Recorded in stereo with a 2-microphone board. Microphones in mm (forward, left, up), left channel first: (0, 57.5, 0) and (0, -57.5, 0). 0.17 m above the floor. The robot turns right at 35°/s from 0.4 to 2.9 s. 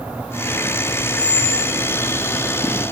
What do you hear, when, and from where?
1.1 s a squeak: 45° right (ahead or behind), 3.5 m; by 1.8 s 65° right (ahead or behind), 3.5 m